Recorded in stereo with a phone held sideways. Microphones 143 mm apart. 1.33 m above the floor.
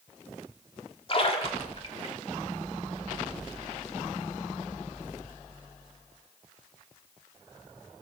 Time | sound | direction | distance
1.1 | a splash | 40° left (ahead or behind) | 2.5 m